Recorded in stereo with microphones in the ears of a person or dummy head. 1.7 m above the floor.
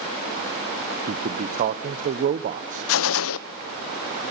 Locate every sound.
1.1 s a man speaking: 50° right (ahead or behind), 1.1 m
2.9 s a gunshot: 75° left (ahead or behind), 0.8 m